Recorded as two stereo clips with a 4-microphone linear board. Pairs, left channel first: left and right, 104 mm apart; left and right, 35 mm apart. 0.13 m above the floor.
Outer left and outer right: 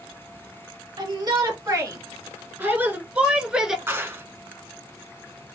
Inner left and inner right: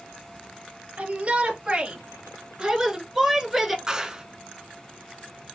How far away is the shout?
About 2 m.